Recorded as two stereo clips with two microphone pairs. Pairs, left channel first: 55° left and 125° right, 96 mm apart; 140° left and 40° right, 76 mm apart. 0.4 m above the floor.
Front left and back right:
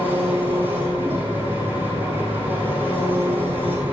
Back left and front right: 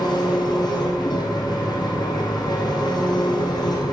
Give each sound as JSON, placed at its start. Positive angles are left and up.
{"t": 0.0, "sound": "an engine running", "azimuth_deg": 165, "distance_m": 4.0}